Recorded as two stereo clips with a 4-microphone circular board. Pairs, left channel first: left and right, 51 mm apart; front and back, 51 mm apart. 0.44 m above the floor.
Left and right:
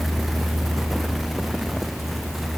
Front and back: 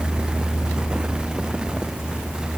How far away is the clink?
I don't hear a clink.